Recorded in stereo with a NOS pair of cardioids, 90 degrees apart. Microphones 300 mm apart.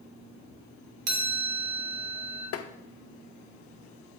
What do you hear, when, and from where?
1.1 s a chime: 60° right, 2.5 m
2.5 s tapping: 55° left, 0.7 m